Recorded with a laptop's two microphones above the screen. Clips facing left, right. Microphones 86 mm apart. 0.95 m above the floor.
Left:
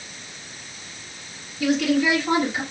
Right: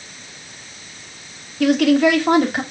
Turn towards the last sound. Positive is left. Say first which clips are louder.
# right 6 dB
turn(degrees=-70)  # may be behind; listen again after turning